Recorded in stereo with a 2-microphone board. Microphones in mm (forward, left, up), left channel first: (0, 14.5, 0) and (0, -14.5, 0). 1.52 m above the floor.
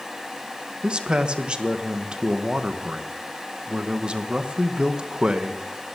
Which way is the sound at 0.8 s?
35° right (ahead or behind).